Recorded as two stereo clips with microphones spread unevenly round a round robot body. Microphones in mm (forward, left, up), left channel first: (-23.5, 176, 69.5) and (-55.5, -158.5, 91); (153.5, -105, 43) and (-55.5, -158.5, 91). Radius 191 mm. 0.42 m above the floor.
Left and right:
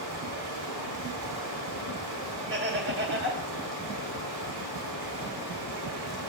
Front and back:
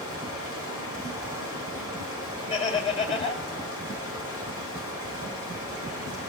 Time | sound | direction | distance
0.0 | running water | 90° right | 4.5 m
2.5 | laughter | 45° right | 2.5 m